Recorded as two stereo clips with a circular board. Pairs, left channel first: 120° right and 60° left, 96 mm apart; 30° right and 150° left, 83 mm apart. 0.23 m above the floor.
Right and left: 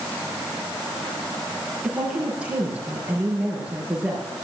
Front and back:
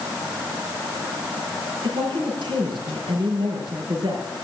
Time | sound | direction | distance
1.8 | a woman speaking | 135° left | 5.5 m